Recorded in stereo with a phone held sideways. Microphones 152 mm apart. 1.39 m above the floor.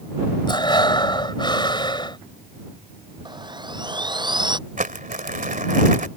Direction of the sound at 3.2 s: 30° right (ahead or behind).